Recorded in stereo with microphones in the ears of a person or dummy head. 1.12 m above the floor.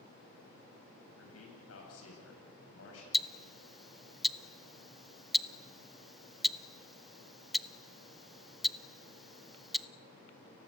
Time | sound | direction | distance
1.1 | a man speaking | 80° left | 8 m
3.1 | ticking | centre (ahead or behind) | 0.6 m